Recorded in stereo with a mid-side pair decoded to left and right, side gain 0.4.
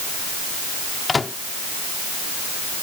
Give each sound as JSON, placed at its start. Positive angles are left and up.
{"t": 1.1, "sound": "a microwave", "azimuth_deg": 30}